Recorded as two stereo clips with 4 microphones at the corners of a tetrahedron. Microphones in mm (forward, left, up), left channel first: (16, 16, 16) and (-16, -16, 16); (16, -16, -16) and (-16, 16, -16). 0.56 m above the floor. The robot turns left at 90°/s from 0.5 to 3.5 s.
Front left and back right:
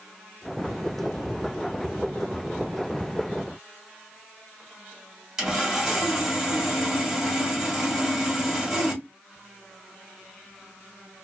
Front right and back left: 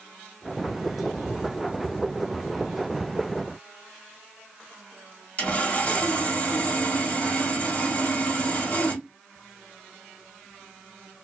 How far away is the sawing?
About 1.5 m.